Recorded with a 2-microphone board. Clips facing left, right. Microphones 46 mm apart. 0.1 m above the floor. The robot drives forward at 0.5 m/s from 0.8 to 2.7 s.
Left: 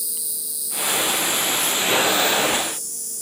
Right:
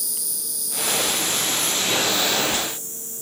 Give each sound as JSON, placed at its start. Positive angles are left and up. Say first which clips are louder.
{"t": 0.0, "sound": "an insect", "louder": "right 1 dB", "side_deg": -60}